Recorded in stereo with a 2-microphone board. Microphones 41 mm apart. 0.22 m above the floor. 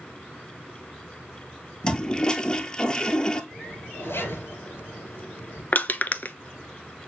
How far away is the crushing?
About 0.5 m.